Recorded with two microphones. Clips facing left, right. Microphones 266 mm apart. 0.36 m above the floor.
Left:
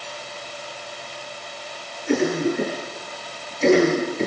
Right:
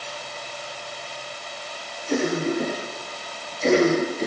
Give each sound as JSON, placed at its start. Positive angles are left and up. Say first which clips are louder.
{"t": 2.1, "sound": "a cough", "louder": "left 3 dB", "side_deg": 75, "distance_m": 5.5}